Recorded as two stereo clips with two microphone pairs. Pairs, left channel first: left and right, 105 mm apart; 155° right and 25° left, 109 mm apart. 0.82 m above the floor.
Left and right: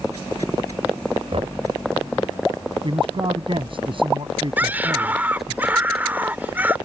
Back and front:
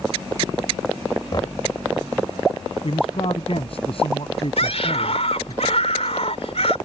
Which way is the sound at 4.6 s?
165° right.